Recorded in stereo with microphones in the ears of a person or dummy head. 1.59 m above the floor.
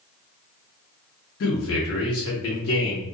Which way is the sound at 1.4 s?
65° left (ahead or behind).